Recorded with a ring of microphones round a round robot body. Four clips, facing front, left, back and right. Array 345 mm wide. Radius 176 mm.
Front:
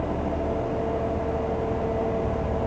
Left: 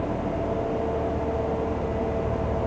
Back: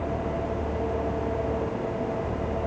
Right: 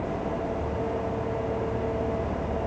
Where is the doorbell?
No doorbell in this recording.